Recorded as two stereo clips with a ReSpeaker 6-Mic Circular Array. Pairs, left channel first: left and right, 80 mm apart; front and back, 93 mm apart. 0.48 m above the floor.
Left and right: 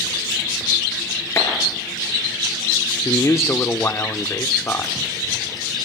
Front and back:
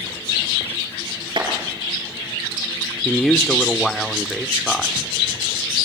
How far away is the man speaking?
About 0.9 m.